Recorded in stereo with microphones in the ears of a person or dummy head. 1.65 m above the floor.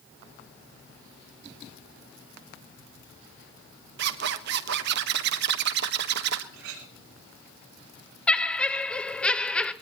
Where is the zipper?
65° right (ahead or behind), 1.3 m.